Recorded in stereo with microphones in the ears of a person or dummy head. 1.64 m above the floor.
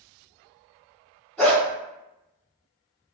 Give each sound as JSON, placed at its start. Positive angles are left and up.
{"t": 1.4, "sound": "a dog barking", "side_deg": 0, "distance_m": 1.4}